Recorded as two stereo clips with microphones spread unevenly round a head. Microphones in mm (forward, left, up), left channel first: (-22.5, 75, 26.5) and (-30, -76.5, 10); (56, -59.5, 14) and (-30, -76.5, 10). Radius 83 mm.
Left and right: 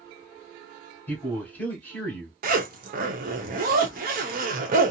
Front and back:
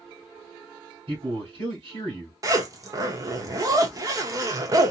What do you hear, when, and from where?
1.1 s a man speaking: 165° left, 1.5 m
2.4 s a zipper: 120° right, 0.9 m